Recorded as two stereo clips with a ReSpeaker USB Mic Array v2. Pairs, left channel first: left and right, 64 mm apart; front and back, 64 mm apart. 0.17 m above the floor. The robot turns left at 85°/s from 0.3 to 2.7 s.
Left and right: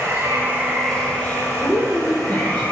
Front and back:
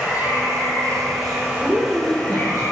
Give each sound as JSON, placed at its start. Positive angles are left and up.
{"t": 0.0, "sound": "running water", "azimuth_deg": -130, "distance_m": 3.0}
{"t": 1.6, "sound": "a woman speaking", "azimuth_deg": 100, "distance_m": 3.0}